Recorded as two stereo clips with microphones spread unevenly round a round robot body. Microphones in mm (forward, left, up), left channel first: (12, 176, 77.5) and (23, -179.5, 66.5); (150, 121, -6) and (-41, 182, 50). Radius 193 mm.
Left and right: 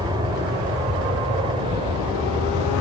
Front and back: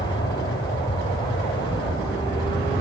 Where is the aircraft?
20° right; by 2.8 s 25° right.